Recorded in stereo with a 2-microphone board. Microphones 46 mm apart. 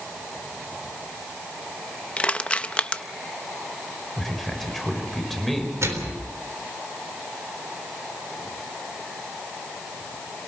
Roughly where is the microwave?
Right.